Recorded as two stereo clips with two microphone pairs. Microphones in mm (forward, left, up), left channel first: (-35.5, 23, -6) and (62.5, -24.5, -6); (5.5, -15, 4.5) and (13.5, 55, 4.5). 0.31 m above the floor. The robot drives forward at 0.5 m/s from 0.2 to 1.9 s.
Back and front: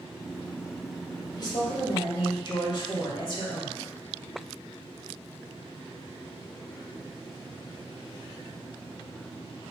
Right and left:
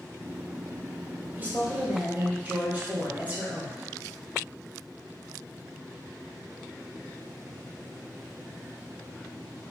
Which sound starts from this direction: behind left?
A woman speaking, at 1.4 s.